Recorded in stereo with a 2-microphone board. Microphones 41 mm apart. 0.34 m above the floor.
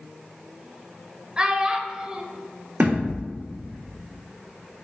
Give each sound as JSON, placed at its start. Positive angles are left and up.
{"t": 1.4, "sound": "a child speaking", "side_deg": -20, "distance_m": 0.9}
{"t": 2.8, "sound": "a thud", "side_deg": -45, "distance_m": 2.5}